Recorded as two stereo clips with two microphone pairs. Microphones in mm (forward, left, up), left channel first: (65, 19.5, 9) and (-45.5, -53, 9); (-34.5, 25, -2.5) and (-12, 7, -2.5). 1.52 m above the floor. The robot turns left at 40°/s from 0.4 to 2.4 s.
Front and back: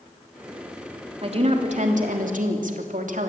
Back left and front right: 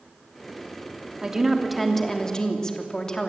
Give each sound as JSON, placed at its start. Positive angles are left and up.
{"t": 1.2, "sound": "a woman speaking", "azimuth_deg": -105, "distance_m": 3.0}